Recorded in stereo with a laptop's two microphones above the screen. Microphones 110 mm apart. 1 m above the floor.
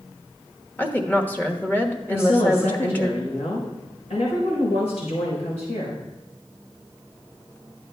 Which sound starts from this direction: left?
A woman speaking, at 2.1 s.